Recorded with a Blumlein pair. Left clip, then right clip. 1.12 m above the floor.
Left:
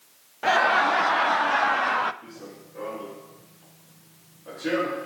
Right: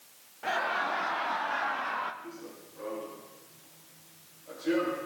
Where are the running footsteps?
50° left, 4 m.